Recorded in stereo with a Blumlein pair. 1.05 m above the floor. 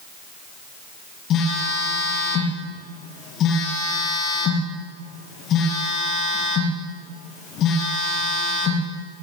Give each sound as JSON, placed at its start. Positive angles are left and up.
{"t": 1.3, "sound": "a phone buzzing", "azimuth_deg": 30, "distance_m": 6.0}